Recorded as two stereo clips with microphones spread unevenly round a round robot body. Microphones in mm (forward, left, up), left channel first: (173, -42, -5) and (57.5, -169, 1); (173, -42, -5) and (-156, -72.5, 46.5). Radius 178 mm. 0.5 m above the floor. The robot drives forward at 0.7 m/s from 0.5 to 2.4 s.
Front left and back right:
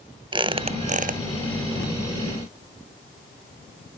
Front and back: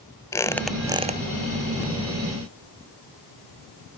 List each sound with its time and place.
0.3 s a squeak: 70° right, 1.0 m; by 1.2 s 105° right, 0.9 m